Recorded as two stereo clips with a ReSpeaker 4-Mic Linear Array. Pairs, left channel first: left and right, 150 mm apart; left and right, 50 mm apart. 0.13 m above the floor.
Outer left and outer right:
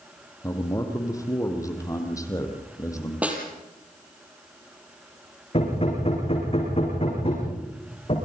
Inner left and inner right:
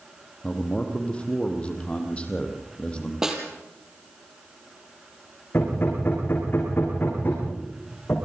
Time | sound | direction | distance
0.4 | a man speaking | 20° left (ahead or behind) | 4 m
3.2 | a snare drum | 10° right (ahead or behind) | 4.5 m
5.5 | hammering | 40° left (ahead or behind) | 9.5 m